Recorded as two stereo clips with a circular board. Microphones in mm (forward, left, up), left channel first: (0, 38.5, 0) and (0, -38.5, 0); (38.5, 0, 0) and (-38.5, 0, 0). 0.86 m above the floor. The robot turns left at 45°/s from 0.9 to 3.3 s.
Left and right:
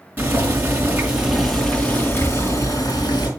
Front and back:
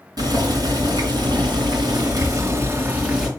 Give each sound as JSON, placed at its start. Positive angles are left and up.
{"t": 0.2, "sound": "boiling", "azimuth_deg": -155, "distance_m": 4.0}